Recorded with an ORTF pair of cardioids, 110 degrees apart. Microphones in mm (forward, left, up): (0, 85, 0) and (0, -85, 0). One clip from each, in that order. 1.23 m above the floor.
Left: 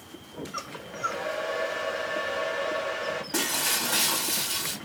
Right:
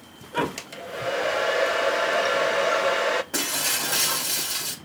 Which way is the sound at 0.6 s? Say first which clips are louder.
Even; 65° right.